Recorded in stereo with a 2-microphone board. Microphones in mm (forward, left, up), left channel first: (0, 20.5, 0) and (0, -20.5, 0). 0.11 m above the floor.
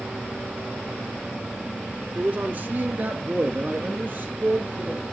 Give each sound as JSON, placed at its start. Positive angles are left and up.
{"t": 2.1, "sound": "a man speaking", "side_deg": -40, "distance_m": 1.5}